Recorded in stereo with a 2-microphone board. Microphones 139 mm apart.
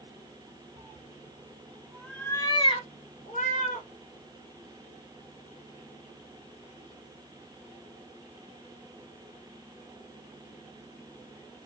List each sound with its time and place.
0.8 s a cat meowing: 55° right (ahead or behind), 1.3 m; by 3.9 s 70° left (ahead or behind), 1.7 m